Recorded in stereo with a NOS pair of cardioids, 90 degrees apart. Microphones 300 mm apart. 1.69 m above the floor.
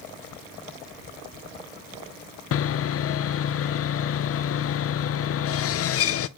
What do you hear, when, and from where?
2.5 s sawing: 50° left, 0.5 m